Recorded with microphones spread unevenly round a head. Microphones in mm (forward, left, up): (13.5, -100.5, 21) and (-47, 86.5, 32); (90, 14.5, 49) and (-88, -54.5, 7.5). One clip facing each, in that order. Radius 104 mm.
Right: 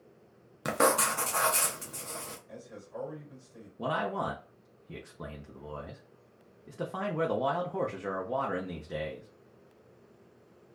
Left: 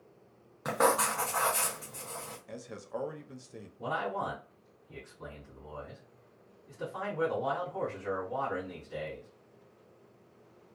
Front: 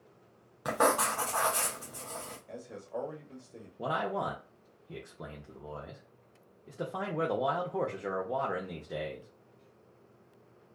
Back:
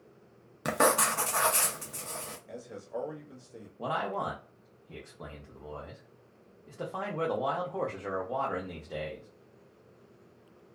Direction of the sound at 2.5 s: 115° left.